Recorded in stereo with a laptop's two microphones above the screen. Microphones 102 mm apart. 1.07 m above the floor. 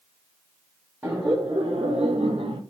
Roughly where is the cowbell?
No cowbell in this recording.